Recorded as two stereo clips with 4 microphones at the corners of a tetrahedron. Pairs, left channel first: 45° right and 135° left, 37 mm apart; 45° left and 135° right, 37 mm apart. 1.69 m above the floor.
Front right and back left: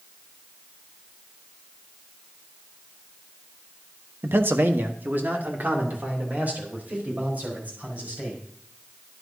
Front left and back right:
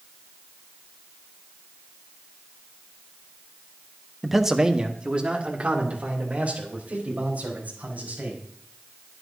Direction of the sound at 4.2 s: 135° left.